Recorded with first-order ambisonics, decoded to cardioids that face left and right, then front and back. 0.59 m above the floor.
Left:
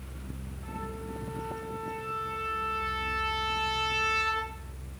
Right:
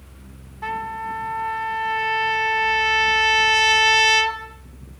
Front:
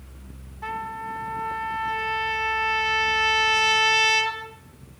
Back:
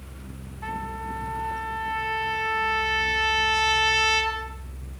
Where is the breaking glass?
No breaking glass in this recording.